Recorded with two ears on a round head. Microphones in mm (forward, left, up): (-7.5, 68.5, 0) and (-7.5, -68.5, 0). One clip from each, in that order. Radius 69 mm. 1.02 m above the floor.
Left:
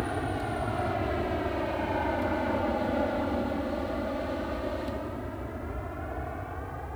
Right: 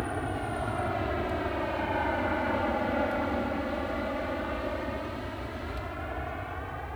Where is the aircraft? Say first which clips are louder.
Left 1 dB; 10° right (ahead or behind); by 7.0 s 60° right (ahead or behind).